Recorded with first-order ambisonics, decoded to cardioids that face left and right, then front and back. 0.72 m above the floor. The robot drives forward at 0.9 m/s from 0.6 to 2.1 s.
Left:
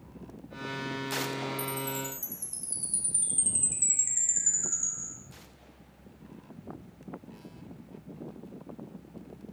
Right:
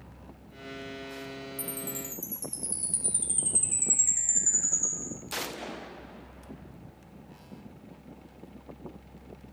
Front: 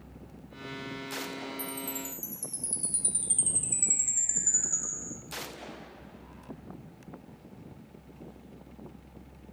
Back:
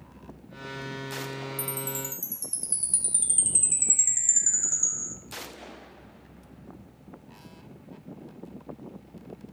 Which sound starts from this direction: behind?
A chime, at 1.6 s.